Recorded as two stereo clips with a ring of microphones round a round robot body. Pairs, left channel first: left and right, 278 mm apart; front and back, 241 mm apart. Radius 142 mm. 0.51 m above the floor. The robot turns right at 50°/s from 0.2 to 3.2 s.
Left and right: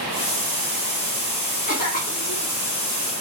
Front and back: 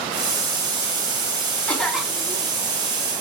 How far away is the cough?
About 1.5 m.